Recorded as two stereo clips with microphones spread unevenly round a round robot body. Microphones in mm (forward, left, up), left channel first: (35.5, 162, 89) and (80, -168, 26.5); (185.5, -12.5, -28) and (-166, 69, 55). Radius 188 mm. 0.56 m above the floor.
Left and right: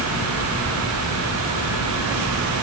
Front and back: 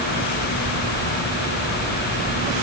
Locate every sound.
Only background noise.